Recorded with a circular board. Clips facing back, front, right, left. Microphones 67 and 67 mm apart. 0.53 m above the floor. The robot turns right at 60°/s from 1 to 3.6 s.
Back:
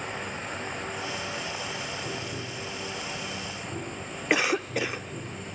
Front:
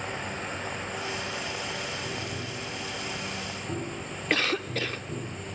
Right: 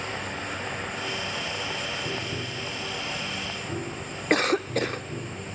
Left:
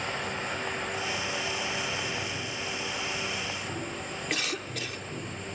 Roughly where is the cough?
Right.